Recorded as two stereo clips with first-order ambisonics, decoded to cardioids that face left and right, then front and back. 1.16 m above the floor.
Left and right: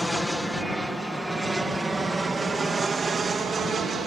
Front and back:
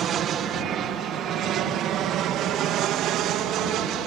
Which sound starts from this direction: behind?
An aircraft, at 0.0 s.